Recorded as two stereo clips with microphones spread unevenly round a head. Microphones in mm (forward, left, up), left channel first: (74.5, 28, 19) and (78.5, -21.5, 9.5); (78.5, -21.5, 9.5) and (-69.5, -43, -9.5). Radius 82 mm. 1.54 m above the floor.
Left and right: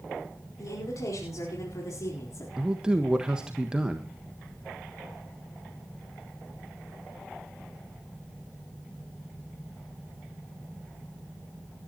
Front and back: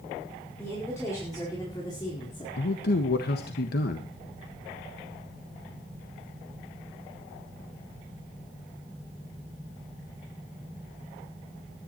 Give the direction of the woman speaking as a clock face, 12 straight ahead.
9 o'clock.